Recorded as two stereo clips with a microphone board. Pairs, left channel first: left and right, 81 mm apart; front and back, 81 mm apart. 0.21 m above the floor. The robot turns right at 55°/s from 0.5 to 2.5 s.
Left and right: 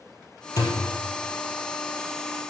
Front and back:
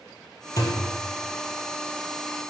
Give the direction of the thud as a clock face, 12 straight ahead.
11 o'clock.